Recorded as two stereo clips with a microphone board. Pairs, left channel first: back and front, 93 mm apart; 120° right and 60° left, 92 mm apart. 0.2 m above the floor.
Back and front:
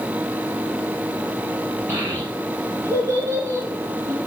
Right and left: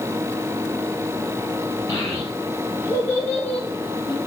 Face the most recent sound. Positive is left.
turn(degrees=-35)